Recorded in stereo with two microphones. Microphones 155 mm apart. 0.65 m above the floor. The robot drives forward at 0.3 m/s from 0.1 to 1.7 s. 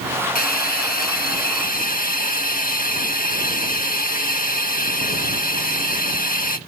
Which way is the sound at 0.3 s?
60° left (ahead or behind).